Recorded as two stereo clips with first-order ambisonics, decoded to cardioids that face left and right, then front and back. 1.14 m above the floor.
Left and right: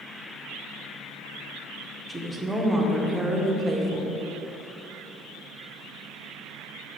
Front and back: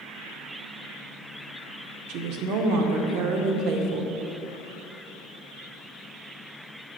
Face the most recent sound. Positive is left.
turn(degrees=-170)